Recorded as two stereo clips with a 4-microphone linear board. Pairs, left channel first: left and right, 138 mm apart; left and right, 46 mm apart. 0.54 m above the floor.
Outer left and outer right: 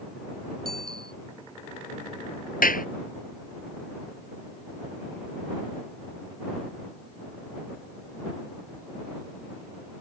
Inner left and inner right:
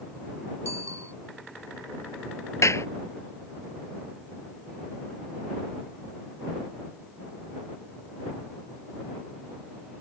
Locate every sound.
0.7 s a bicycle bell: 85° right
2.6 s a clap: 80° left